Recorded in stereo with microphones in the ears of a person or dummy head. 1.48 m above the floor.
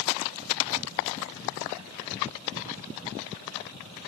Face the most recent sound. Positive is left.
No sound to turn to.